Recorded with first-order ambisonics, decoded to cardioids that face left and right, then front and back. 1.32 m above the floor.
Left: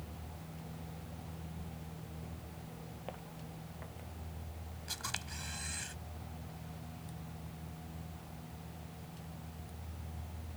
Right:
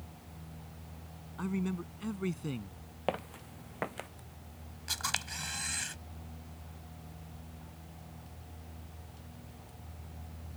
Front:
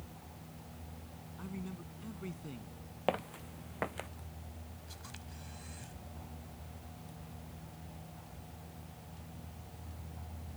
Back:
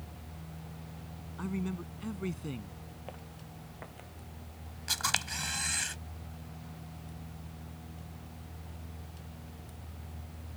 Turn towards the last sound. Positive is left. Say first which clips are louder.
# right 7 dB, back 23 dB
turn(degrees=-155)